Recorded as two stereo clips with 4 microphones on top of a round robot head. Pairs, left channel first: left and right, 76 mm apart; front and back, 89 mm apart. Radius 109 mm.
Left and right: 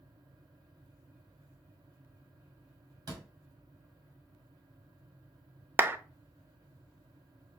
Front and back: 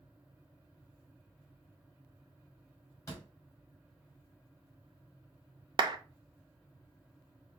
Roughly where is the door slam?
Ahead right.